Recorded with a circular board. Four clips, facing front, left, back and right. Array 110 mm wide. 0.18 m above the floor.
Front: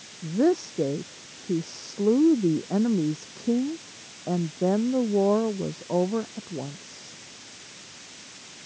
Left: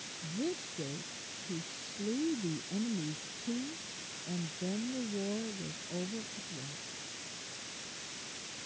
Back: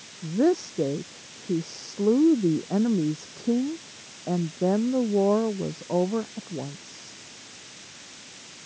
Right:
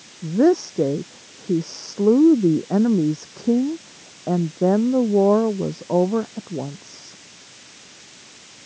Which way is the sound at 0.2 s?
90° right.